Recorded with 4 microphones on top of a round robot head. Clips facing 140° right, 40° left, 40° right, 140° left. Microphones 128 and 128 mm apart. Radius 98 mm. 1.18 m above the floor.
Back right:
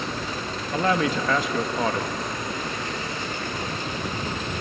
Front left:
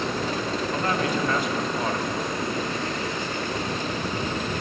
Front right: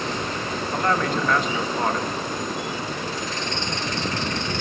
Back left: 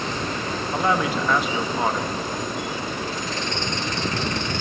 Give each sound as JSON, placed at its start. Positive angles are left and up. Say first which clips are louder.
{"t": 0.7, "sound": "a man speaking", "louder": "back right 5 dB, back left 1 dB", "azimuth_deg": -135, "distance_m": 1.6}